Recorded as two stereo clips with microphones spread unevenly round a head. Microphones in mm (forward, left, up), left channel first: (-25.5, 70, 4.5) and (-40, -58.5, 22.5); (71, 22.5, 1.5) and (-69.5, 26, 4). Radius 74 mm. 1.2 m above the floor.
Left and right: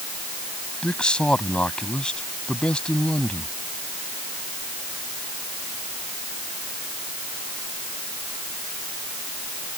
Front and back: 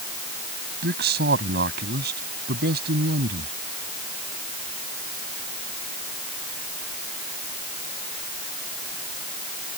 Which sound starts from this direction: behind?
A man speaking, at 0.8 s.